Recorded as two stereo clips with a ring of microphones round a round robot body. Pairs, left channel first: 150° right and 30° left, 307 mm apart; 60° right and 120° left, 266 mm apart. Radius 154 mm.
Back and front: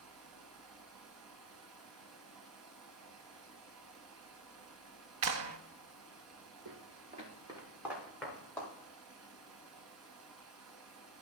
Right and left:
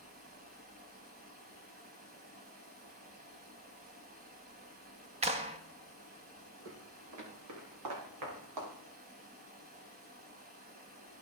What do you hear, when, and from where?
0.0 s running water: 65° left, 1.8 m
5.2 s a clap: 55° left, 0.8 m
6.7 s footsteps: 85° left, 3 m; by 8.7 s 130° left, 4.5 m